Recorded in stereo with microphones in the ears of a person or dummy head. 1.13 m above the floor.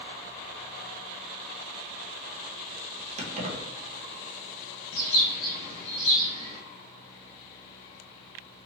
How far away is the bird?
About 1.2 m.